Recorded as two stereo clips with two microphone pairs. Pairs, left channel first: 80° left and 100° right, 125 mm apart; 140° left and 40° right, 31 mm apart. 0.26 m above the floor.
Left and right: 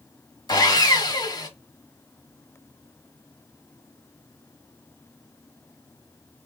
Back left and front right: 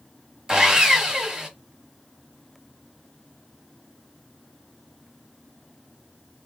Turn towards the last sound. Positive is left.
turn(degrees=30)